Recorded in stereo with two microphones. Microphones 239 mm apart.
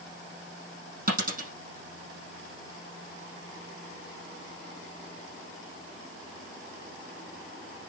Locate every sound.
1.1 s a dropped coin: 35° right (ahead or behind), 5.5 m